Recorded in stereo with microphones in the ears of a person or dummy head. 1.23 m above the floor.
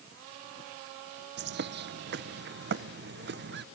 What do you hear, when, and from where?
1.4 s a bird: 45° right (ahead or behind), 0.6 m